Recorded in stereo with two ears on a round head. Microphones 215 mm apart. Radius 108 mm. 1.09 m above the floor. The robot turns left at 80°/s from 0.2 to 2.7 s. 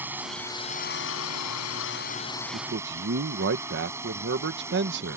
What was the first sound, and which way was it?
A drone, 170° right.